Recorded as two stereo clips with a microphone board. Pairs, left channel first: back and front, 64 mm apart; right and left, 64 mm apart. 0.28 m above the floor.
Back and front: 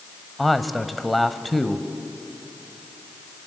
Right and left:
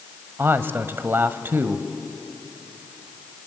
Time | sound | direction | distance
0.4 | a man speaking | 90° left | 1.1 m